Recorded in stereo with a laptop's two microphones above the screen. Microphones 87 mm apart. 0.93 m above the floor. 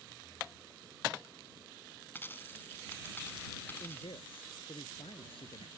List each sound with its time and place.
2.1 s a dropped coin: 25° left (ahead or behind)
3.8 s a man speaking: 85° left